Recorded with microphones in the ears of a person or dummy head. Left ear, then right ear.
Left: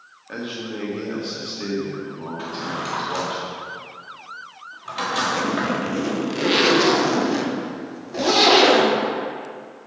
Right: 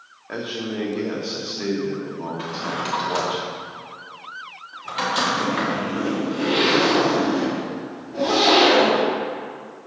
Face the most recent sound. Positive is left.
turn(degrees=55)  # may be behind; listen again after turning